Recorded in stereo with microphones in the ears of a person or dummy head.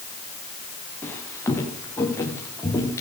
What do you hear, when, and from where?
1.0 s footsteps: 10° left (ahead or behind), 5 m; by 3.0 s 15° left (ahead or behind), 7 m